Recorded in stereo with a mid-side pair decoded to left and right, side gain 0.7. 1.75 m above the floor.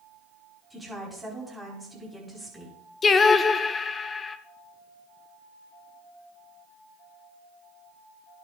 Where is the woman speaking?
Straight ahead, 4.5 m.